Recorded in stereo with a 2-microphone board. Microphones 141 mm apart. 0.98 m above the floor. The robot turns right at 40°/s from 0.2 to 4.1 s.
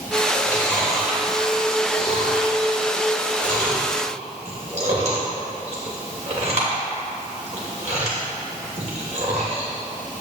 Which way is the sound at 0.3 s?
25° left (ahead or behind).